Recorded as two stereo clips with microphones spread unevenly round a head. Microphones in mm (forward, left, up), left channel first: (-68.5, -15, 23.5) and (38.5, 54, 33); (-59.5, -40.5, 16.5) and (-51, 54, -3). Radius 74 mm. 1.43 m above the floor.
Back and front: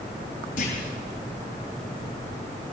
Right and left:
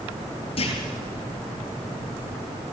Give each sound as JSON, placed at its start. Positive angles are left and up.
{"t": 0.6, "sound": "a clunk", "azimuth_deg": -110, "distance_m": 8.5}